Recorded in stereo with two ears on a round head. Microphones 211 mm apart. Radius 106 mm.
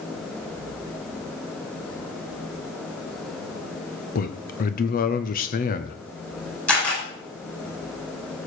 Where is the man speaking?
35° left (ahead or behind), 0.8 m.